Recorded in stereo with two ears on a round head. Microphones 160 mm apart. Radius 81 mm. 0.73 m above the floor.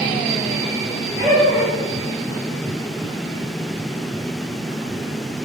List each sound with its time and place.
1.2 s laughter: 15° right (ahead or behind), 3 m